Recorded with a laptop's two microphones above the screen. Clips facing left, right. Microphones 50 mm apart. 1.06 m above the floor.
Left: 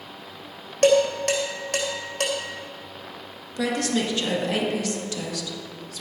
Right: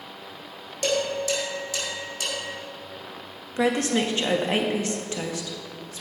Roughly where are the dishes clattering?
Left.